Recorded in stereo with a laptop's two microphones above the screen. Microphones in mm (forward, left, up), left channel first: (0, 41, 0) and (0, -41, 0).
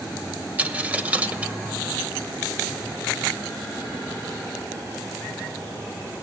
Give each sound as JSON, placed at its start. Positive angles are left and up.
{"t": 0.6, "sound": "a dropped coin", "side_deg": -20, "distance_m": 0.9}